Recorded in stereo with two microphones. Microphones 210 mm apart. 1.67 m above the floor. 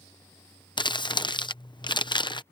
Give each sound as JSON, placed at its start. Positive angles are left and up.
{"t": 0.8, "sound": "crumpling", "side_deg": 20}